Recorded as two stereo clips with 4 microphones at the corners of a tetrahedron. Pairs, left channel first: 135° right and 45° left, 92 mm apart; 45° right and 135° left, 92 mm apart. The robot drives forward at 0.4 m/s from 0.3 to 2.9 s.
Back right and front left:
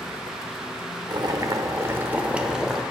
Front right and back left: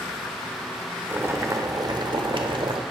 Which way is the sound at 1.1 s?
70° left.